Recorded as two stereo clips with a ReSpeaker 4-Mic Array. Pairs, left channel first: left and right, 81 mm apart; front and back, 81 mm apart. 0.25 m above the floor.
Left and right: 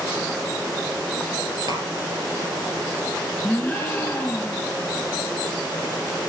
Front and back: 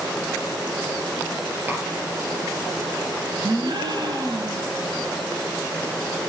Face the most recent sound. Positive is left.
turn(degrees=160)